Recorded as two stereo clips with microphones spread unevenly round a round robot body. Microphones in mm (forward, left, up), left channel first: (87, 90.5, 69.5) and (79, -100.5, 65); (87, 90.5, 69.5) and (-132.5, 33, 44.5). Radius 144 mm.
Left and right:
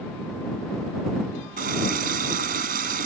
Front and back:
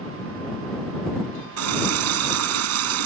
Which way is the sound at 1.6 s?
150° right.